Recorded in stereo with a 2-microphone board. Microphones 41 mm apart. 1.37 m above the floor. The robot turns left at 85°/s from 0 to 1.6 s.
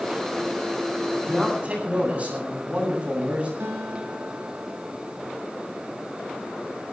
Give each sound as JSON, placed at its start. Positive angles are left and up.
{"t": 1.1, "sound": "a man speaking", "azimuth_deg": 5, "distance_m": 8.5}
{"t": 3.6, "sound": "a guitar", "side_deg": -80, "distance_m": 5.5}